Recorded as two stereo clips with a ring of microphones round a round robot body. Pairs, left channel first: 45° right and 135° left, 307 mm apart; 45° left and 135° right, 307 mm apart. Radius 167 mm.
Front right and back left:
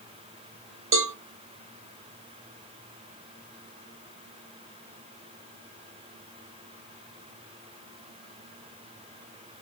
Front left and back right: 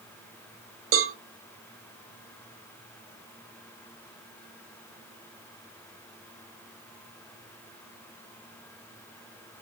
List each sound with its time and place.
0.9 s a cowbell: straight behind, 0.8 m